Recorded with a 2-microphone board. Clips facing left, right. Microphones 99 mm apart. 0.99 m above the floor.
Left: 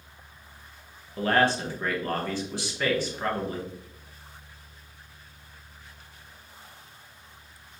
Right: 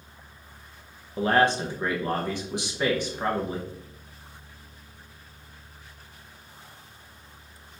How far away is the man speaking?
About 0.8 m.